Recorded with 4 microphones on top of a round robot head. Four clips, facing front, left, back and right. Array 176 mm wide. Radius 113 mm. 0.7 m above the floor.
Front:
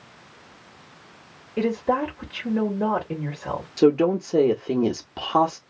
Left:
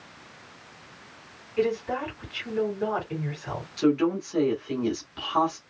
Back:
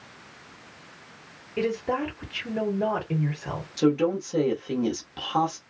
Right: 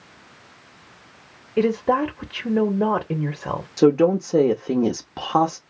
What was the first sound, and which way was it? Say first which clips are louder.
A woman speaking: right 7 dB, front 4 dB; 85° right.